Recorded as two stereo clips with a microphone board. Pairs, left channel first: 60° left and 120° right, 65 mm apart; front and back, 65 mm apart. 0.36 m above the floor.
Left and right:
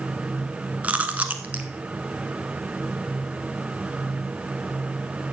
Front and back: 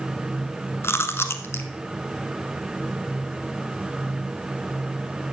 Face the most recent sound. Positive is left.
turn(degrees=-50)